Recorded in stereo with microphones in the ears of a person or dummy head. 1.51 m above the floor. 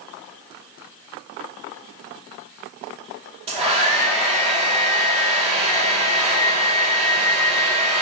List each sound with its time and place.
3.5 s a hair dryer: 30° right (ahead or behind), 2.5 m